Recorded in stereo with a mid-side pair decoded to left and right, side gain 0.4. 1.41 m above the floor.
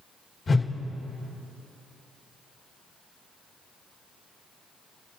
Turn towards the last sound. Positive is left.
turn(degrees=45)